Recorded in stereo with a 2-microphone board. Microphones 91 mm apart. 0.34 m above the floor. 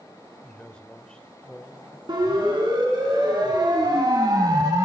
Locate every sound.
0.4 s a man speaking: 10° left (ahead or behind), 0.9 m
2.1 s a siren: 55° right (ahead or behind), 3.5 m; by 4.8 s 45° right (ahead or behind), 1.7 m